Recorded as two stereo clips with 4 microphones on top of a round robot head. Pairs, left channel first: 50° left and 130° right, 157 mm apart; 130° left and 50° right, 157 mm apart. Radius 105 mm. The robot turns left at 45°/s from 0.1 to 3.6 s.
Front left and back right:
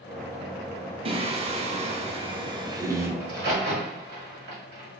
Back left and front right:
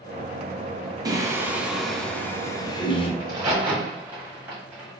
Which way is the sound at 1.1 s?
105° right.